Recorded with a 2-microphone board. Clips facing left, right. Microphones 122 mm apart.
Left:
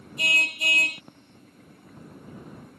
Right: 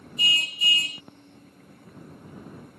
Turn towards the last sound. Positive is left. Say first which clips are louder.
# left 2 dB
turn(degrees=70)  # may be behind; listen again after turning